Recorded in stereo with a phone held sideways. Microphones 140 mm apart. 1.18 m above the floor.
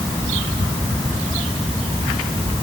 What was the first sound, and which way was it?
Only background noise.